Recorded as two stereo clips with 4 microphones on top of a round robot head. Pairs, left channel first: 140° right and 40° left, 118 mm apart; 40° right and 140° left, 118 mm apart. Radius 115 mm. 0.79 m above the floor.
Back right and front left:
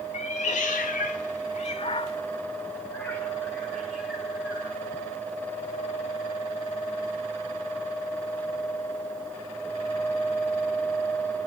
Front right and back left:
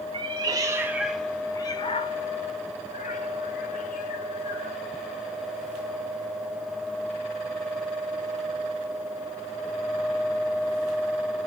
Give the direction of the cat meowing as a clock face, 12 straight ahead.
6 o'clock.